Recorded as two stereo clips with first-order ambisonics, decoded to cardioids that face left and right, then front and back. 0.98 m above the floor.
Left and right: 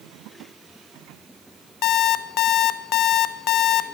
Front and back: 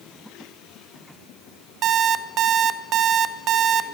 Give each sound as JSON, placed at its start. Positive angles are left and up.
{"t": 1.8, "sound": "an alarm clock", "azimuth_deg": 130, "distance_m": 0.6}